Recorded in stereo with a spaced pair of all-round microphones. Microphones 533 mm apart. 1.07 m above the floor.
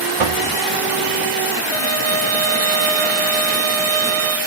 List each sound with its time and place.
0.2 s knocking: 65° right (ahead or behind), 0.9 m
1.7 s a violin: 75° right (ahead or behind), 1.0 m